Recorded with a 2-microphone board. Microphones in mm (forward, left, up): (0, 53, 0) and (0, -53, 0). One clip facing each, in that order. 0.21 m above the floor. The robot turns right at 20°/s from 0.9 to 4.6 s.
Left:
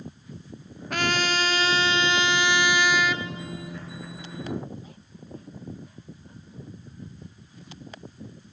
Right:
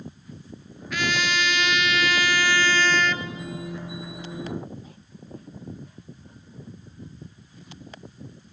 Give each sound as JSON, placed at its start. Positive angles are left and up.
{"t": 0.9, "sound": "a trumpet", "azimuth_deg": 125, "distance_m": 0.6}